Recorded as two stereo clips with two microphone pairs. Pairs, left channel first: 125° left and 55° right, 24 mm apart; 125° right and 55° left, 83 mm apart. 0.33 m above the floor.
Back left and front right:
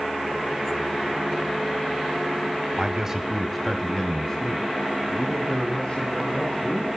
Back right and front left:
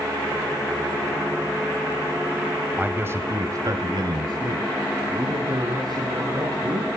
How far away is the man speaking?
About 1.5 m.